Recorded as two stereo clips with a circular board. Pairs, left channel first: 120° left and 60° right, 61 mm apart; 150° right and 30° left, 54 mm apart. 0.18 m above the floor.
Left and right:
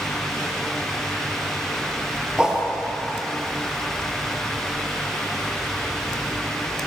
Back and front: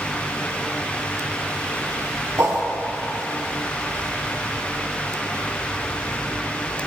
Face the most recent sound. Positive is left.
turn(degrees=15)